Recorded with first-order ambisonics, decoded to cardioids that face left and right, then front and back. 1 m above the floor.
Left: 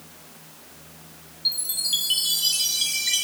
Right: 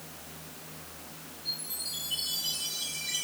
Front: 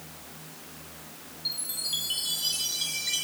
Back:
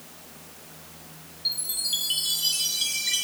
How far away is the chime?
About 1.9 m.